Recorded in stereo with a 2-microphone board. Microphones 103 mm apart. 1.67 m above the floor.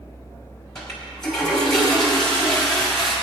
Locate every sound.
0.8 s a toilet flushing: 5° left (ahead or behind), 3.5 m